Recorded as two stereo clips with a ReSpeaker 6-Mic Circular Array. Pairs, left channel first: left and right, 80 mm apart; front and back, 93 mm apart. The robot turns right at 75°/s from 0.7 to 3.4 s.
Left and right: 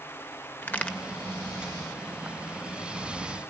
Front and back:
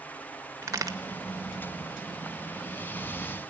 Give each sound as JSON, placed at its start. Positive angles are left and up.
{"t": 0.6, "sound": "a crack", "azimuth_deg": 145, "distance_m": 1.2}